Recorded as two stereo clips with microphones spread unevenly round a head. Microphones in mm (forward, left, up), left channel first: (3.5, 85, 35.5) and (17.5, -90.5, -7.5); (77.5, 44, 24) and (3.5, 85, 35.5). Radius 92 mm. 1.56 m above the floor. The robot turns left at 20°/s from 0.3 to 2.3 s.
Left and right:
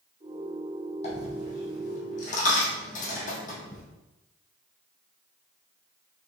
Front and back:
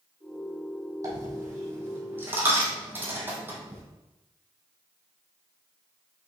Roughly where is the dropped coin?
Behind left.